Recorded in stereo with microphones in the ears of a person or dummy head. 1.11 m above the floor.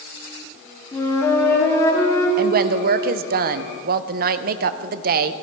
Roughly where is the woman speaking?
Right.